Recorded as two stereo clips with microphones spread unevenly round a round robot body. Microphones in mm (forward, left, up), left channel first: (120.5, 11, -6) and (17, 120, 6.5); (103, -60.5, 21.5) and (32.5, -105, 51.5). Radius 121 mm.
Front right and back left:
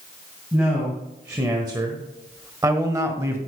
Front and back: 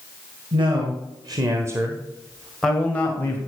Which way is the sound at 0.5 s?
150° right.